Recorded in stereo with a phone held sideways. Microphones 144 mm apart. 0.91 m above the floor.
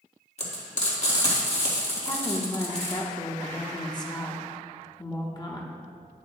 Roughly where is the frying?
Left.